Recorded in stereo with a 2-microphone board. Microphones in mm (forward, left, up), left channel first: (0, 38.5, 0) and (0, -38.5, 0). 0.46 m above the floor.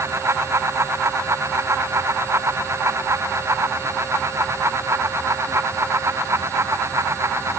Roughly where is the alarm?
I don't hear an alarm.